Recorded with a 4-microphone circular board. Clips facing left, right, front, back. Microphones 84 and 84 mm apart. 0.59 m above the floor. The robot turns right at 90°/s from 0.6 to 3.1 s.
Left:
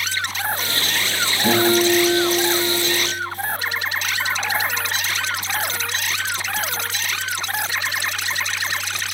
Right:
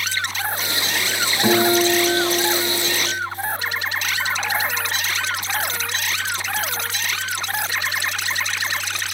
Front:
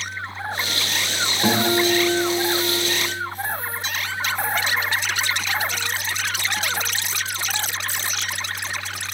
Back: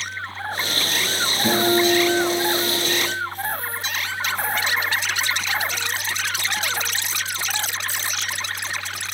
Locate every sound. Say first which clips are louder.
1.4 s a guitar: even, back 1 dB; 50° right, 3 m; by 2.9 s 85° left, 3 m